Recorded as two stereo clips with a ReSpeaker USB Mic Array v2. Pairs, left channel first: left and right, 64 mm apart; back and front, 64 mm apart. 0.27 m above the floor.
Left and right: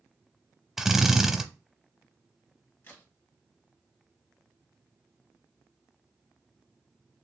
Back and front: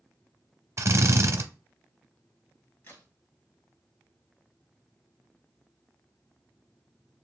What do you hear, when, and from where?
0.8 s a drill: 5° right, 0.6 m
2.8 s a crack: 135° left, 1.8 m